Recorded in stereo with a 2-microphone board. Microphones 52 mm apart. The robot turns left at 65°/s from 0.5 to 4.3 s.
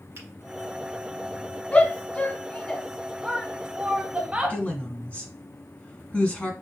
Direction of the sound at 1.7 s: 25° left (ahead or behind).